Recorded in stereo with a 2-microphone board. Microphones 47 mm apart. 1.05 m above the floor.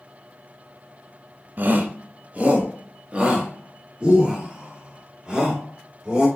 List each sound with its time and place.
1.6 s a shout: 40° right (ahead or behind), 1.3 m; by 6.3 s 15° right (ahead or behind), 4 m